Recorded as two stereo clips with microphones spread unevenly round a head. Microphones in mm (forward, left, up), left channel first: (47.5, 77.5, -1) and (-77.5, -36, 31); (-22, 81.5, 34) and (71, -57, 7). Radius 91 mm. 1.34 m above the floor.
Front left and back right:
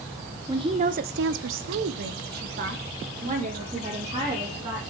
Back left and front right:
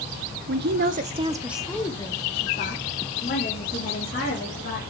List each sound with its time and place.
0.5 s a woman speaking: 65° right, 0.8 m; by 4.8 s 165° left, 3 m